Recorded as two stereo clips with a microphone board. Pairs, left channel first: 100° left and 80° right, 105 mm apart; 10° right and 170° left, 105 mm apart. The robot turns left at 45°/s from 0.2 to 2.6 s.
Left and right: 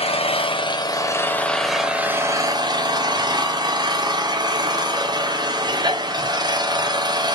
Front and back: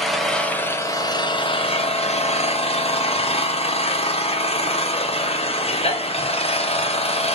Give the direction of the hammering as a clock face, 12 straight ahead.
No hammering in this recording.